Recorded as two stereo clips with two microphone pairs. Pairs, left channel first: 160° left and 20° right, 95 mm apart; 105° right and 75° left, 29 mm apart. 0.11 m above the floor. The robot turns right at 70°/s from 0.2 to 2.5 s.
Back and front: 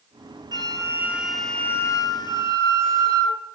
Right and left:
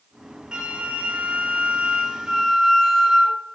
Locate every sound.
0.5 s a flute: 15° left, 0.7 m; by 3.4 s 155° left, 0.7 m